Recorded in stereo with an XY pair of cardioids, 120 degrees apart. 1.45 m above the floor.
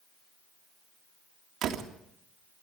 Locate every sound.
1.6 s a door slam: 65° right, 2.0 m